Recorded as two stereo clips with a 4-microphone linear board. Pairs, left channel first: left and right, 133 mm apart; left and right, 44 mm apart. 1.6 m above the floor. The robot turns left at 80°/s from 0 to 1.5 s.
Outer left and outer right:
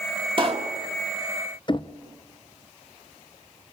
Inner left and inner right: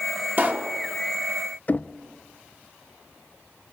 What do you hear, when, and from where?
0.4 s a pop: 40° right (ahead or behind), 1.7 m; by 0.7 s 55° right (ahead or behind), 1.7 m
1.7 s knocking: 35° left (ahead or behind), 0.6 m